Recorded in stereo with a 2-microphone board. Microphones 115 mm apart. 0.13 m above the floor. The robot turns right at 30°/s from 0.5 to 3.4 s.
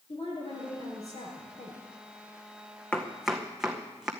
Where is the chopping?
10° left (ahead or behind), 1.7 m; by 4.1 s 5° right (ahead or behind), 1.7 m.